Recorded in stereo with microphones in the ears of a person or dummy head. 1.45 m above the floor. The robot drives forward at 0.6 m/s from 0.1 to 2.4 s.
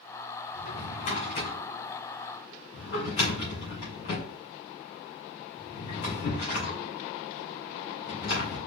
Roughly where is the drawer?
Left.